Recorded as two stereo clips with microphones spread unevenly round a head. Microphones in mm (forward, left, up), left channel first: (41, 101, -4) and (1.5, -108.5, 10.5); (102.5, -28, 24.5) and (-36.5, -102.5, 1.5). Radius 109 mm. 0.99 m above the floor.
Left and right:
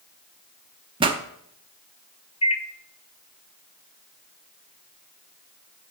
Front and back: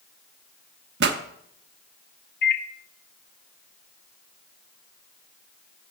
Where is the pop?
165° right, 0.7 m.